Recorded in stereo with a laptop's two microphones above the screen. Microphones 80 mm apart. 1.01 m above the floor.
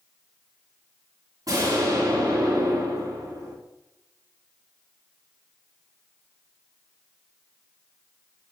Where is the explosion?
50° right (ahead or behind), 4 m.